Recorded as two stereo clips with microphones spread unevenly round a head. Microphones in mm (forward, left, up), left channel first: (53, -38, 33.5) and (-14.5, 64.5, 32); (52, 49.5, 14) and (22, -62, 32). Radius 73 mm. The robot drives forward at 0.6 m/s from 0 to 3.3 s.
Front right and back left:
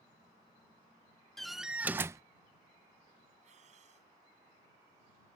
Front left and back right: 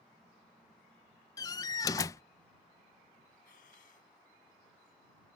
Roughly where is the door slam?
Ahead left.